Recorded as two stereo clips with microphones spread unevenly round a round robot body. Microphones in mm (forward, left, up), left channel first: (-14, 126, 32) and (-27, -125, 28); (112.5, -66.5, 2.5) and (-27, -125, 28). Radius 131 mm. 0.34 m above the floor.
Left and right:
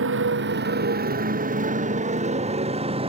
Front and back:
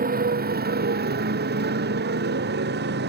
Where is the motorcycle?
135° right; by 3.1 s 160° right.